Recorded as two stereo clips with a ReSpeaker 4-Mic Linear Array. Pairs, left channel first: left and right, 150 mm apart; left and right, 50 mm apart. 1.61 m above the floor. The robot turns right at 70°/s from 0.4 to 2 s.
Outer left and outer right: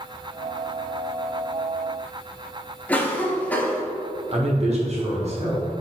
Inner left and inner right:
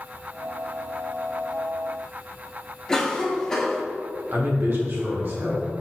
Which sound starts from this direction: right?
A man speaking, at 4.3 s.